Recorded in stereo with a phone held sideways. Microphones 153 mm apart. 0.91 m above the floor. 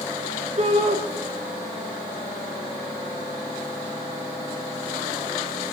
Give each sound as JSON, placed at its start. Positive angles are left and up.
{"t": 0.6, "sound": "a shout", "side_deg": -45, "distance_m": 3.0}